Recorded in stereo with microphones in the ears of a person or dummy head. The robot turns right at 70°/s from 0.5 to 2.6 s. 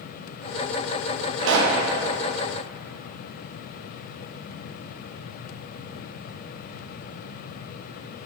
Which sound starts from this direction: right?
A pop, at 1.4 s.